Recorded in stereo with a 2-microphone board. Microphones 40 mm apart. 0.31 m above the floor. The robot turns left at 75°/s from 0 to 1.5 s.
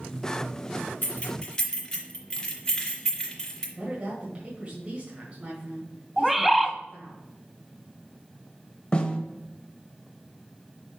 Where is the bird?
5° right (ahead or behind), 0.5 m.